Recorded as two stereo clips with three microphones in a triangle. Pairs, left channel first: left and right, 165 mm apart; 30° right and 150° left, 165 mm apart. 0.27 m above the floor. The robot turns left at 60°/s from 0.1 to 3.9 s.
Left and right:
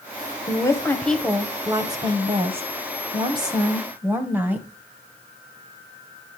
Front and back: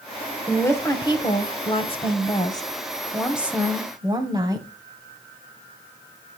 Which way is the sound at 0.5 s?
45° left.